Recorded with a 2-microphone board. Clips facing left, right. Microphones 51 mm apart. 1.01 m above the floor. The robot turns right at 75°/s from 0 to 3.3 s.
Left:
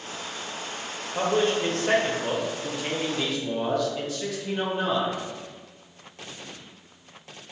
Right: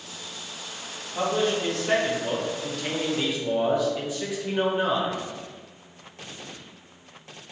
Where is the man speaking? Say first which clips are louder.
Left 1 dB; 45° left, 0.6 m; by 5.2 s 155° right, 0.6 m.